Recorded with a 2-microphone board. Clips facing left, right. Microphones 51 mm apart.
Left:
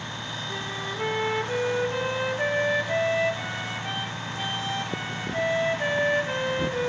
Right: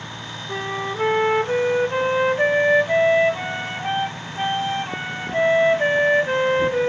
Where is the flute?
35° right (ahead or behind), 1.1 m.